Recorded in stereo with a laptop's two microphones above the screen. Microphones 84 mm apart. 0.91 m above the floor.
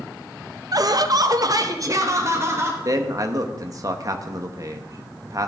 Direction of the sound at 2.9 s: 45° right (ahead or behind).